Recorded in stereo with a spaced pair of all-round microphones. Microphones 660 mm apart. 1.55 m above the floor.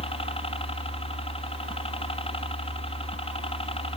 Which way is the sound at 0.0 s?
10° left (ahead or behind).